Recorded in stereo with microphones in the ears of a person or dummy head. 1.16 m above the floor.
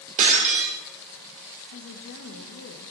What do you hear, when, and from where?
0.2 s breaking glass: 40° right (ahead or behind), 1.8 m
1.7 s a woman speaking: 65° left (ahead or behind), 1.1 m